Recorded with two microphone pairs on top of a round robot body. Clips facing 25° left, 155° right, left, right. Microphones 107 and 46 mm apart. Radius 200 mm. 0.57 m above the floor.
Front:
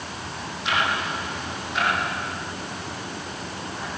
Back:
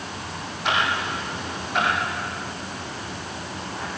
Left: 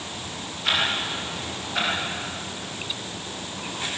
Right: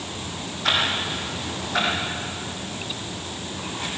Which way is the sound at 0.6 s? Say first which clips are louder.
Back 1 dB, right 1 dB; 115° right.